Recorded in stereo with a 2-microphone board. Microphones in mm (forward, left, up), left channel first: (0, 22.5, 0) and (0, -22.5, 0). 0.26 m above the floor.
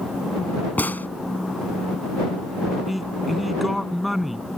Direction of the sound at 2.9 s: Centre (ahead or behind).